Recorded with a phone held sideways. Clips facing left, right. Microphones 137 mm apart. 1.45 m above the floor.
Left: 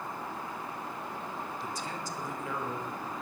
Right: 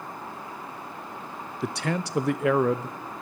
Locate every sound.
1.6 s a man speaking: 75° right (ahead or behind), 0.7 m